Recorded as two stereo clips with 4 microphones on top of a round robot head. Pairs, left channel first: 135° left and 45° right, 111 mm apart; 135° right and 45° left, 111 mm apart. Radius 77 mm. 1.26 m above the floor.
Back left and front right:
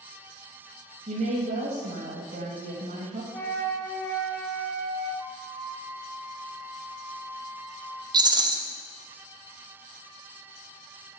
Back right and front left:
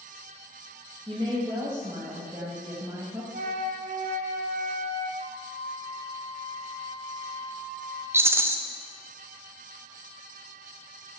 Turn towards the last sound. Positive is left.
turn(degrees=-15)